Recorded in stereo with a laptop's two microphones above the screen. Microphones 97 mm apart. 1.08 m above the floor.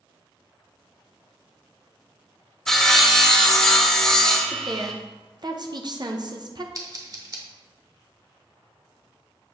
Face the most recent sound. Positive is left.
turn(degrees=-40)  # may be behind; listen again after turning